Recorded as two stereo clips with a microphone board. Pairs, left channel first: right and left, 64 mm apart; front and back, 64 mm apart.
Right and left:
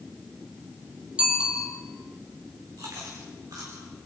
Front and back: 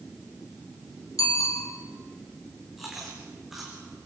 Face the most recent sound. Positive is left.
turn(degrees=95)